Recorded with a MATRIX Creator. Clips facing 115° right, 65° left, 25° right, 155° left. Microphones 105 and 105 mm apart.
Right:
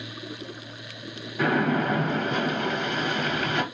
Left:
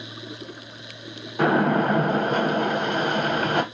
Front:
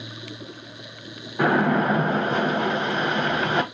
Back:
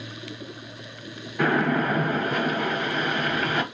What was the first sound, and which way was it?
A splash, 35° left.